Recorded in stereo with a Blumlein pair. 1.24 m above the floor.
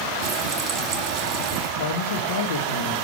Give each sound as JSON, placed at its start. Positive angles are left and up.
{"t": 0.2, "sound": "frying", "azimuth_deg": -35, "distance_m": 1.4}
{"t": 1.8, "sound": "a man speaking", "azimuth_deg": 60, "distance_m": 1.1}